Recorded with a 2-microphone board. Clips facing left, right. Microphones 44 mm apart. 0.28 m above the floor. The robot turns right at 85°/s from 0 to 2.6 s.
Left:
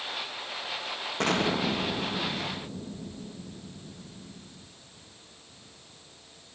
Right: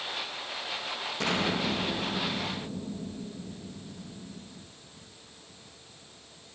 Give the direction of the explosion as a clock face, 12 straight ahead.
10 o'clock.